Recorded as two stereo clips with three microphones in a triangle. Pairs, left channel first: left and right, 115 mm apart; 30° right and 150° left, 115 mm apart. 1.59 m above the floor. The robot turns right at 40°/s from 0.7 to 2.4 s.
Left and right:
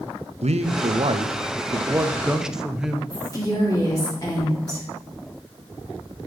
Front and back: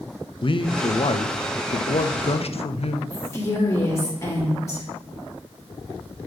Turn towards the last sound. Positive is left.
turn(degrees=35)